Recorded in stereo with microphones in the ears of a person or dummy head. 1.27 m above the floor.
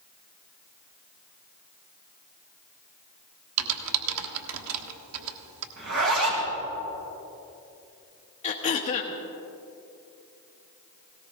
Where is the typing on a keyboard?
70° right (ahead or behind), 1.4 m.